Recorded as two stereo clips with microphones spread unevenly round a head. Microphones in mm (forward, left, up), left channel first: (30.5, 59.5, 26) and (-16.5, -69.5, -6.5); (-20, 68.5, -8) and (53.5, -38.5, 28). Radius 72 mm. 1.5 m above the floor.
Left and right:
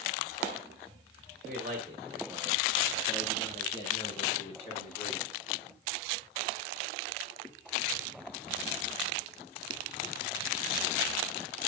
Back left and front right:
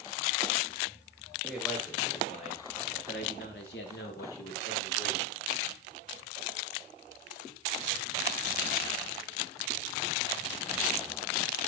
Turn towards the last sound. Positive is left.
turn(degrees=115)